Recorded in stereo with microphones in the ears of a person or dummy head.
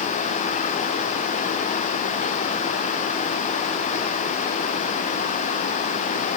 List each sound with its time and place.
Only background noise.